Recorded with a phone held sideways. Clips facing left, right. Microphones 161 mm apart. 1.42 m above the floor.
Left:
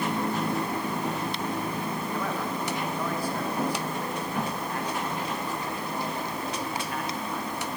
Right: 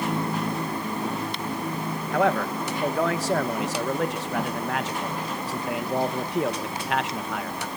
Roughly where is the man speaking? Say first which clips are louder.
Right 12 dB; right.